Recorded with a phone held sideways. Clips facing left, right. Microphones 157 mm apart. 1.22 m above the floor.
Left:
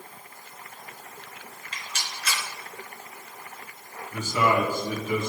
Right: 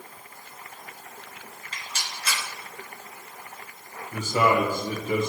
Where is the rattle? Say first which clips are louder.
Even; 35° right (ahead or behind), 2.5 m.